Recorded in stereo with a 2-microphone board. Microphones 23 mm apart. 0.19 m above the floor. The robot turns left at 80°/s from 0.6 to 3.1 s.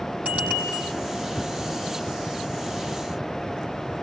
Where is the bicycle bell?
65° right (ahead or behind), 4.5 m; by 0.9 s 80° right, 4.5 m.